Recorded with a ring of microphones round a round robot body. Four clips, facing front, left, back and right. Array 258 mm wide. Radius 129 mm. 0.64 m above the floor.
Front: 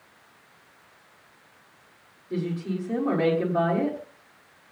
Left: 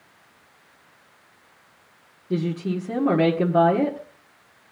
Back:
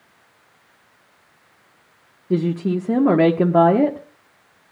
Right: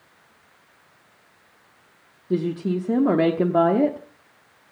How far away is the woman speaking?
About 1.2 m.